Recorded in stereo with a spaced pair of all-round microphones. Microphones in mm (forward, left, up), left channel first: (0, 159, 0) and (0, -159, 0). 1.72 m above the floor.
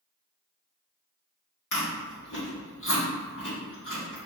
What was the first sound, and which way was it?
Chewing, 75° left (ahead or behind).